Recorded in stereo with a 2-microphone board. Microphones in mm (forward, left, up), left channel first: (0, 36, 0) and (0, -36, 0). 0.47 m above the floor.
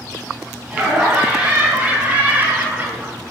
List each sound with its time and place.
0.7 s laughter: 20° right (ahead or behind), 4 m; by 3.1 s 30° right (ahead or behind), 1.2 m